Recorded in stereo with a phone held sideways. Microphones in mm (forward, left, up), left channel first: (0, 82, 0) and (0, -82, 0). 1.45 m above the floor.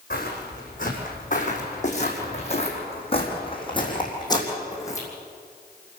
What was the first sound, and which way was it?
Footsteps, 55° left (ahead or behind).